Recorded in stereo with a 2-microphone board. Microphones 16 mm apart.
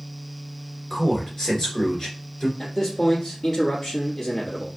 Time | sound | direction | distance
0.9 | a man speaking | 35° left (ahead or behind) | 1.5 m
2.6 | a man speaking | 30° left (ahead or behind) | 1.6 m